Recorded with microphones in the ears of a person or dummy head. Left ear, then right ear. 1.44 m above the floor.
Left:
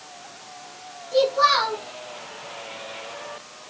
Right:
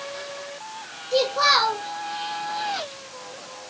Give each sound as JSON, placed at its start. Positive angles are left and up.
{"t": 1.1, "sound": "a child speaking", "side_deg": -25, "distance_m": 0.6}